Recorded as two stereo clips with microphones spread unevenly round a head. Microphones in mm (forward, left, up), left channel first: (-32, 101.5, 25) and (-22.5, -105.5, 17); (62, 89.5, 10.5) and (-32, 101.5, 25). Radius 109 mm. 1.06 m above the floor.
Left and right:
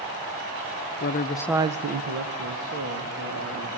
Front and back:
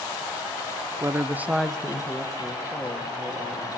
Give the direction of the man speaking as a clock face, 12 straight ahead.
8 o'clock.